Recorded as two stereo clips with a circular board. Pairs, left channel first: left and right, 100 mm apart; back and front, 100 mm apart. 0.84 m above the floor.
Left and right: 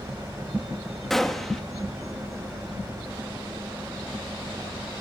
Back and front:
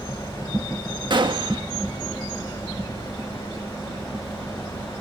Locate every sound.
1.1 s a gunshot: 5° left, 1.5 m